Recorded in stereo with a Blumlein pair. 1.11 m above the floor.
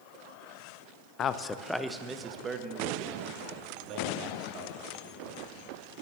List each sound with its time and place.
1.2 s a man speaking: 30° left, 0.5 m; by 5.4 s 40° right, 2.5 m